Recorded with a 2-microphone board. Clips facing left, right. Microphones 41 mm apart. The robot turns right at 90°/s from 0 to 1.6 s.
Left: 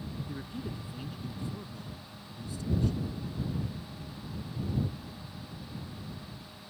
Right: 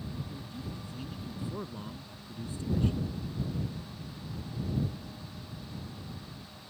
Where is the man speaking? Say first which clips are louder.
Left 3 dB; 105° left; by 3.1 s 135° right.